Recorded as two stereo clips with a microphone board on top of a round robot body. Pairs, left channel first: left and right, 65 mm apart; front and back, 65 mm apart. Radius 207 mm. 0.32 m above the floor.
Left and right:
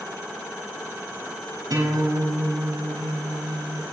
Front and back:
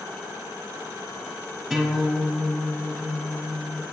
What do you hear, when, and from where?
1.7 s a guitar: 95° right, 6.5 m